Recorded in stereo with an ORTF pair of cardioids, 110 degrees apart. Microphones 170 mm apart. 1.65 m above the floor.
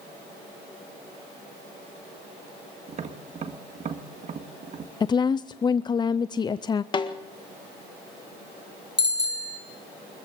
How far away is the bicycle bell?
About 3 m.